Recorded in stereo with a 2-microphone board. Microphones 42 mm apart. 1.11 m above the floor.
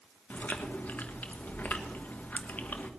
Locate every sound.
0.3 s chewing: 45° left (ahead or behind), 1.2 m